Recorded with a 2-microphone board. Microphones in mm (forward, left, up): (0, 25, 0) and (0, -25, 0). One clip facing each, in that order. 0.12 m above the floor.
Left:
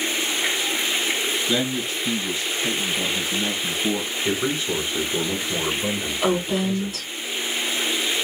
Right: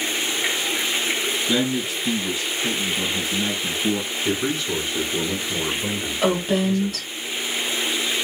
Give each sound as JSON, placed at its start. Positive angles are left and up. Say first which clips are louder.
{"t": 1.5, "sound": "a man speaking", "louder": "right 2 dB", "side_deg": -10, "distance_m": 1.9}
{"t": 4.2, "sound": "a man speaking", "louder": "even", "side_deg": 15, "distance_m": 1.2}
{"t": 6.2, "sound": "a woman speaking", "louder": "right 2 dB", "side_deg": -45, "distance_m": 2.0}